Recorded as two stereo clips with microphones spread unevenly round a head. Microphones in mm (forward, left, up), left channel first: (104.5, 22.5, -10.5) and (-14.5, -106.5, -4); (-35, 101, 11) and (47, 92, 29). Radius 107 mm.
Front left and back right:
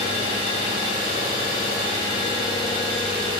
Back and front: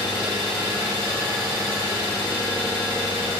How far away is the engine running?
About 1.2 m.